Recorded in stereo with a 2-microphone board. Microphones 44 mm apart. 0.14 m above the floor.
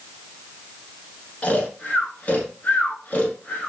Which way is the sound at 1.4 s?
35° left (ahead or behind).